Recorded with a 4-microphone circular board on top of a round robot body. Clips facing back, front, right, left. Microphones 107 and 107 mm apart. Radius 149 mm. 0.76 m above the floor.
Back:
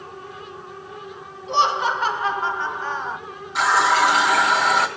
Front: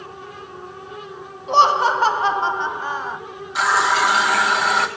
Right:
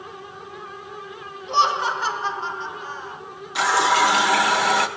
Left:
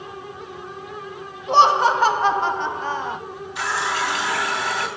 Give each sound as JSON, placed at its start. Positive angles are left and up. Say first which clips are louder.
{"t": 1.5, "sound": "laughter", "louder": "front 5 dB, left 6 dB", "azimuth_deg": 45, "distance_m": 1.6}
{"t": 3.5, "sound": "a running tap", "louder": "back 1 dB, right 6 dB", "azimuth_deg": -90, "distance_m": 1.7}